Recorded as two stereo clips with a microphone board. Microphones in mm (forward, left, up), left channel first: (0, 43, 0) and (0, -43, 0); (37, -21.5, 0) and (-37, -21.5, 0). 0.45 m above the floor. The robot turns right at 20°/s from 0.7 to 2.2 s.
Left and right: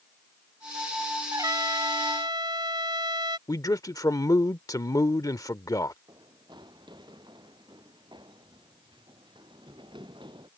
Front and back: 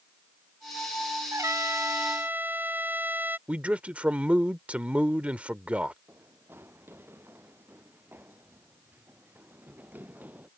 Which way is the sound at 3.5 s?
115° left.